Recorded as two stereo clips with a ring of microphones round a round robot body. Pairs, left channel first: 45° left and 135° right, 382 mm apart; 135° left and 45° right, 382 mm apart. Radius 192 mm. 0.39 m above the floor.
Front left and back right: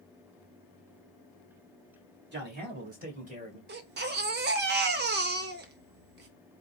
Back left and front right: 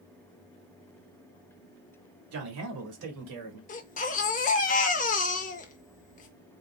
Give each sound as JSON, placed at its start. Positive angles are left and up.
{"t": 2.3, "sound": "a man speaking", "azimuth_deg": -80, "distance_m": 1.6}
{"t": 3.7, "sound": "a baby crying", "azimuth_deg": -175, "distance_m": 0.5}